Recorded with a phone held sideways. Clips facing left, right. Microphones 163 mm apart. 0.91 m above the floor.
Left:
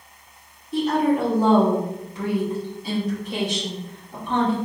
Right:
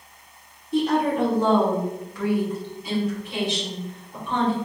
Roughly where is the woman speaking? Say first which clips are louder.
Left 1 dB; centre.